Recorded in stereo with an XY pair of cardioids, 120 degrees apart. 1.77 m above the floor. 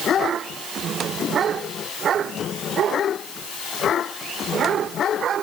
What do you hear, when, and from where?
Only background noise.